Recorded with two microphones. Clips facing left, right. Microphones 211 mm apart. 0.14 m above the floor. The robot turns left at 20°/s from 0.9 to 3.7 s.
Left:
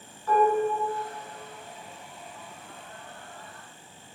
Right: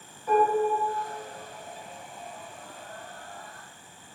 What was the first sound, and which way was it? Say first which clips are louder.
Dishes clattering: even; 15° right (ahead or behind).